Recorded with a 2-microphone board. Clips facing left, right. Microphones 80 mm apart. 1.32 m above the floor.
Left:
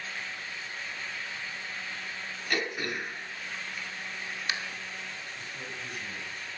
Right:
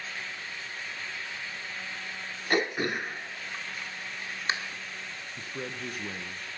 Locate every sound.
2.5 s throat clearing: 30° right (ahead or behind), 1.2 m
5.4 s a man speaking: 55° right (ahead or behind), 1.1 m